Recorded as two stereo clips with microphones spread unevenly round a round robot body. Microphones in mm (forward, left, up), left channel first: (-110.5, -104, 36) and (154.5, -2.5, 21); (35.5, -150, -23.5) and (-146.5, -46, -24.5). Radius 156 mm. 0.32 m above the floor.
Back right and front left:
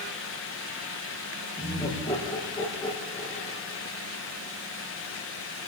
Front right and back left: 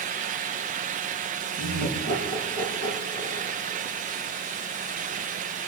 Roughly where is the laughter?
Behind left.